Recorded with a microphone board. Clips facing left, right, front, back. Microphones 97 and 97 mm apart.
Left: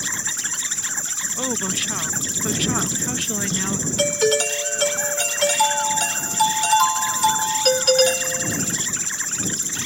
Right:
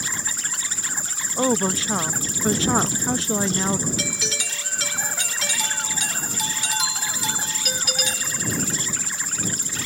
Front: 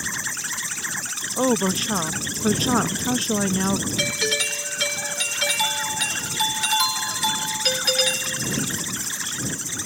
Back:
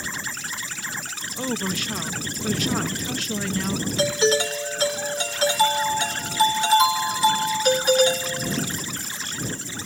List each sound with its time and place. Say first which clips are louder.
0.0 s an insect: left 1 dB, front 1 dB; 10° right
1.4 s a woman speaking: right 6 dB, front 7 dB; 35° right
4.0 s a doorbell: left 12 dB, back 7 dB; 120° left